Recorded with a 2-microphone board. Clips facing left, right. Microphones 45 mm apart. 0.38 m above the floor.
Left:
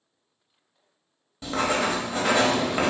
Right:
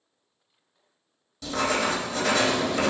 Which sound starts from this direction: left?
Writing, at 1.4 s.